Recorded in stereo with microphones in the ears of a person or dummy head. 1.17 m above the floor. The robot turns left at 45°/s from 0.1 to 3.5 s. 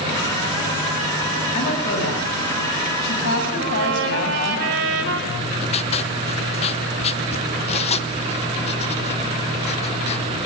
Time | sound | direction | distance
1.5 | a woman speaking | 145° left | 7.5 m
3.6 | a trumpet | 75° right (ahead or behind) | 5 m
5.3 | writing | 35° left (ahead or behind) | 0.9 m